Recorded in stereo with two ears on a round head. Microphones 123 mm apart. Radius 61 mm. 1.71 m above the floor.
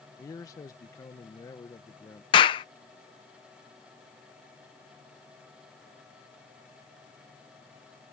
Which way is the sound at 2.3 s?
35° left (ahead or behind).